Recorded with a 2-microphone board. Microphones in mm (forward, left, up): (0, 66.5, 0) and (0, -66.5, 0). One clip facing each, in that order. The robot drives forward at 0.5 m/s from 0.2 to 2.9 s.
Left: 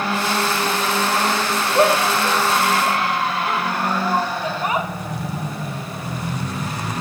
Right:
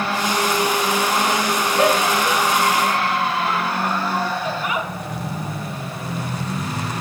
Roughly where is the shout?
Left.